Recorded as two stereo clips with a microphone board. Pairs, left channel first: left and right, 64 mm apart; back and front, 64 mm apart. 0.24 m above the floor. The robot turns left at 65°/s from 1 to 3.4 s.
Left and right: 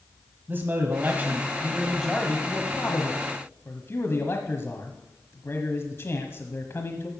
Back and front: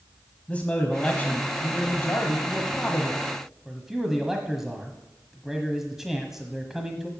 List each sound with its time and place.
0.5 s a man speaking: 120° right, 1.2 m; by 7.1 s 80° left, 1.2 m